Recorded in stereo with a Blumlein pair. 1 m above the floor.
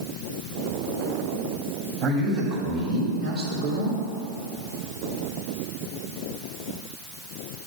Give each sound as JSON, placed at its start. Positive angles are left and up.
{"t": 2.0, "sound": "a man speaking", "azimuth_deg": -35, "distance_m": 1.6}